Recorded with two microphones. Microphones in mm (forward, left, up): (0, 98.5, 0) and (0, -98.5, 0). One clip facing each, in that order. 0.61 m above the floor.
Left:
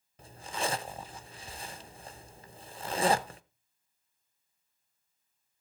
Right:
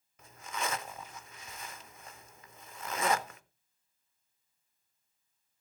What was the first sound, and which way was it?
A zipper, 35° left (ahead or behind).